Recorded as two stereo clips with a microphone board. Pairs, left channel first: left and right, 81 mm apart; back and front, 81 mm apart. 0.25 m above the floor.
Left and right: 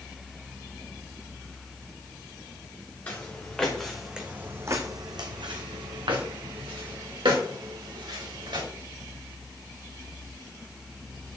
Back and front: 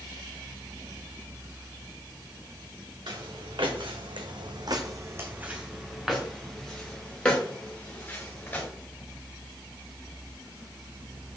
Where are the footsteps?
20° left, 1.9 m; by 8.7 s 110° right, 4 m.